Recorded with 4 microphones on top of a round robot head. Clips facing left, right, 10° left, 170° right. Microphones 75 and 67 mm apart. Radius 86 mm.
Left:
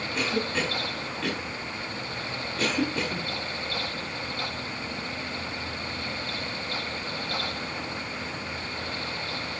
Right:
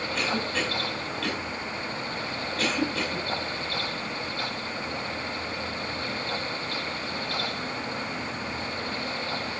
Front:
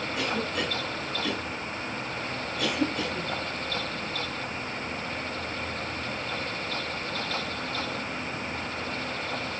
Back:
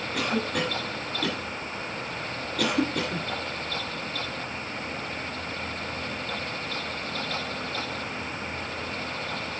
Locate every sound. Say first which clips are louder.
0.1 s a cough: left 1 dB, back 3 dB; 175° left, 8 m